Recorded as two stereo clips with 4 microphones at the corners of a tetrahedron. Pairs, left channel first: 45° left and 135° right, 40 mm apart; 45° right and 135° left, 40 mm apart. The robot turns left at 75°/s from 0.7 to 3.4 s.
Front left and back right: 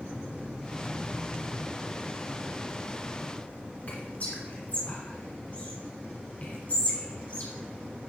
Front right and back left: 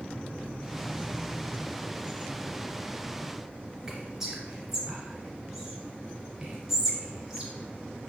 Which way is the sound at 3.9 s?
60° left.